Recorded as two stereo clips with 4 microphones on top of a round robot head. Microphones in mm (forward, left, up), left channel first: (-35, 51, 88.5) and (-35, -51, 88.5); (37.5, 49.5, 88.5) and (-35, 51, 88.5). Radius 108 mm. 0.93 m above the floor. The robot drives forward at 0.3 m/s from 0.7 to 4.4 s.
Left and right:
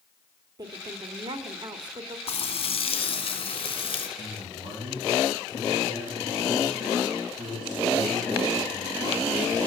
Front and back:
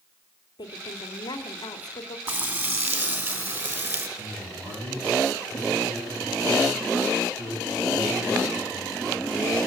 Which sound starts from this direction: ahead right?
A woman speaking, at 0.6 s.